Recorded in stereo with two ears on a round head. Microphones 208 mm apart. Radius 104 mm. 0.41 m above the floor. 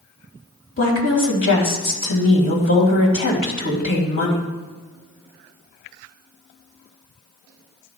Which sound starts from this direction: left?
A woman speaking, at 0.8 s.